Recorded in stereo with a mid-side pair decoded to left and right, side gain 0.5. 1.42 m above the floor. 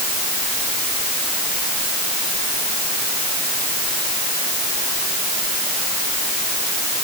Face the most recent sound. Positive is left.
No sound to turn to.